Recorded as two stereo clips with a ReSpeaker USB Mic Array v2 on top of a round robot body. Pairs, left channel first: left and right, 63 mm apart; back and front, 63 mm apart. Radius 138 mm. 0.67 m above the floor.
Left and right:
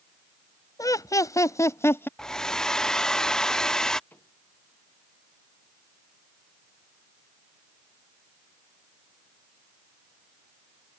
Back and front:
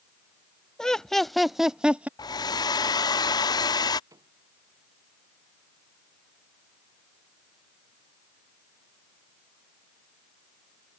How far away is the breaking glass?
No breaking glass in this recording.